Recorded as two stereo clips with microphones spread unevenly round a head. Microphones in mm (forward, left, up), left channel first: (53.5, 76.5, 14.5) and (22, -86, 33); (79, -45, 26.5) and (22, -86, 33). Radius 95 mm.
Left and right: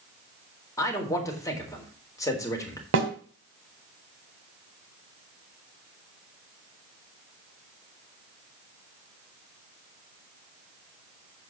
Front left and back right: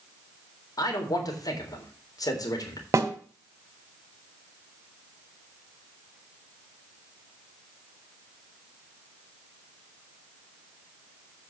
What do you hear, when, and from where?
0.8 s a man speaking: 10° left, 3.5 m
2.9 s a snare drum: 100° right, 2 m